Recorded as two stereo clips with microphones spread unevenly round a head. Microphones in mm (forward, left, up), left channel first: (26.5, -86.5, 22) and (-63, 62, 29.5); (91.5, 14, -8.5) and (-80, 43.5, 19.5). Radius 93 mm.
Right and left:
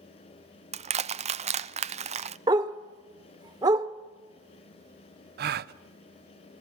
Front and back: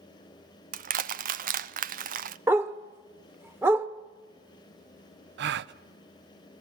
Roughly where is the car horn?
I don't hear a car horn.